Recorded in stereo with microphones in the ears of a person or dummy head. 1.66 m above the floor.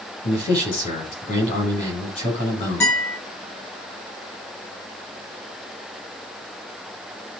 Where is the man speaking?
40° left (ahead or behind), 7 m.